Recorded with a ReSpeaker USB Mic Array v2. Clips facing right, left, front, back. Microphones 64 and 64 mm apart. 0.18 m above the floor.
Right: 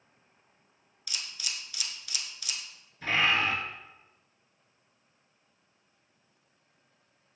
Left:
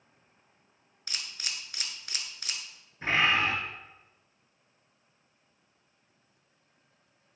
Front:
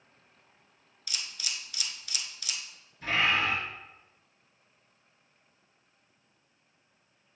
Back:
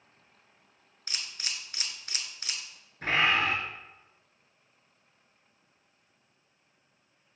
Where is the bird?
145° left, 2 m.